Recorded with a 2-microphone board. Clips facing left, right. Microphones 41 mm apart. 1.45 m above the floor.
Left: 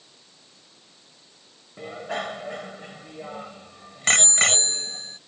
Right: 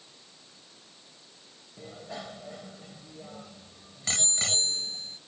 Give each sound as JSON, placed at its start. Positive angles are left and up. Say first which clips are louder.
{"t": 1.8, "sound": "a bicycle bell", "louder": "left 10 dB", "side_deg": 65}